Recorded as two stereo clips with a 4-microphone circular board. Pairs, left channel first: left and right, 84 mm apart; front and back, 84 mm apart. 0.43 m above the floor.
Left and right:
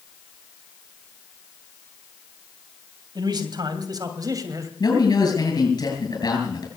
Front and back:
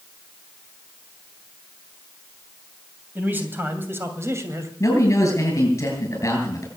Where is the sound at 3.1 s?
115° right, 3 m; by 4.7 s 130° right, 2.5 m.